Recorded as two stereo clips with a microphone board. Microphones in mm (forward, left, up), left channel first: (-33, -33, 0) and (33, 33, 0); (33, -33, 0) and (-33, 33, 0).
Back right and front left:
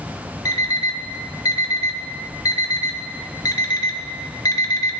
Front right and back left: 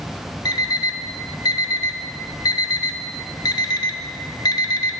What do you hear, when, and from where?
0.5 s an alarm clock: 85° right, 0.8 m